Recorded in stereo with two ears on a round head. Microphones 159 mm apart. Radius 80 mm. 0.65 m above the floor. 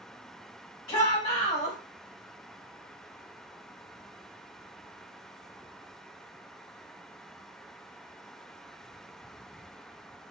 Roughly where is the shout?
Left.